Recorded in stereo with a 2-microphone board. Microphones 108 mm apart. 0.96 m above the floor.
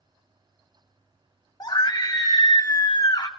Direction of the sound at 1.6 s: 35° left (ahead or behind).